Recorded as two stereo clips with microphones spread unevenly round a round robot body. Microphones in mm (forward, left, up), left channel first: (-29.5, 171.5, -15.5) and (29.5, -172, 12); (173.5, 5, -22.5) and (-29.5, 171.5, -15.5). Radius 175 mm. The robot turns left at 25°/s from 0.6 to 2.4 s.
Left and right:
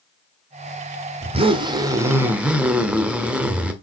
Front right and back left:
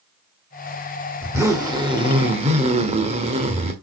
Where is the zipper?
145° right, 1.2 m; by 3.7 s 175° right, 1.2 m.